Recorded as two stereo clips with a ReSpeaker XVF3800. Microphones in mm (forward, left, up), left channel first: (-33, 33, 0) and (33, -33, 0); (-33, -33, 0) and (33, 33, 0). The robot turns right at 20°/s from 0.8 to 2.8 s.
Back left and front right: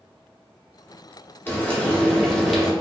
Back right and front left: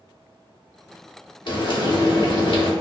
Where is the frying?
155° right, 0.8 m; by 2.7 s 130° right, 0.8 m.